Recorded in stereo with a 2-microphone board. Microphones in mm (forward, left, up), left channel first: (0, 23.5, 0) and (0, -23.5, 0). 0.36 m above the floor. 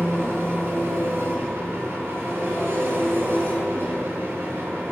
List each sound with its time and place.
0.0 s an engine running: 55° right (ahead or behind), 4 m